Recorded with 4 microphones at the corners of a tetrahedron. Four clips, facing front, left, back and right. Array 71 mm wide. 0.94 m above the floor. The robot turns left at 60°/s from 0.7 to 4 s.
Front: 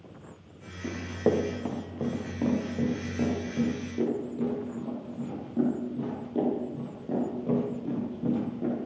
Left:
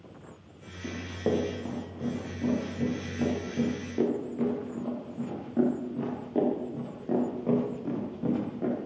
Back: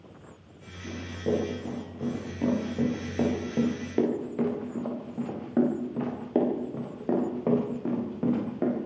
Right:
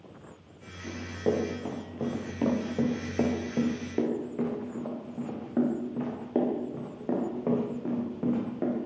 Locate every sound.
0.8 s running footsteps: 20° left, 9 m; by 8.8 s 160° right, 13.5 m